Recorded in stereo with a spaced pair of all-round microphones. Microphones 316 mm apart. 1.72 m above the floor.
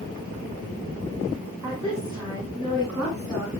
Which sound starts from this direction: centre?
A woman speaking, at 1.6 s.